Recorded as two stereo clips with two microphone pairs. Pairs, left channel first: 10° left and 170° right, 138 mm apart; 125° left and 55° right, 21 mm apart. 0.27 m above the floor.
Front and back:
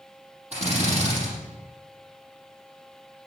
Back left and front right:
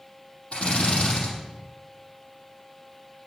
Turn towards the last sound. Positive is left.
turn(degrees=155)